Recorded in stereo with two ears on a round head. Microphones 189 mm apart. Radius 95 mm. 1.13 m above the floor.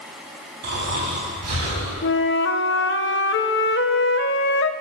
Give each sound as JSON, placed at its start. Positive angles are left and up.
{"t": 0.6, "sound": "snoring", "side_deg": -75, "distance_m": 4.0}
{"t": 2.0, "sound": "a flute", "side_deg": 55, "distance_m": 0.5}